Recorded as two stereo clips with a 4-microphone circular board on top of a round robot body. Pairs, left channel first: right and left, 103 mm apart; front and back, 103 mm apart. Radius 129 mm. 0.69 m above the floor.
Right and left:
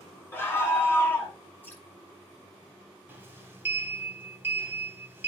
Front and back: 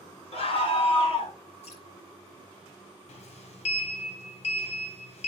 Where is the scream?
20° right, 4.5 m; by 1.3 s 25° right, 3 m.